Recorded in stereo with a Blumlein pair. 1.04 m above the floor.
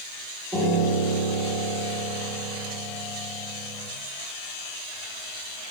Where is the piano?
Straight ahead, 1.5 m.